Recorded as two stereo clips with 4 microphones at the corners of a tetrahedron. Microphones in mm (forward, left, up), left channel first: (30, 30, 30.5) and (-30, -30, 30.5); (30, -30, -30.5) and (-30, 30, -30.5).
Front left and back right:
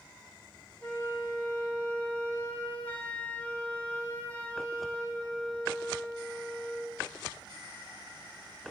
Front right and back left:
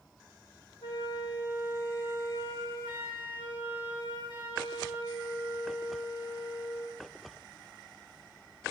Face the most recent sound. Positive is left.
turn(degrees=-30)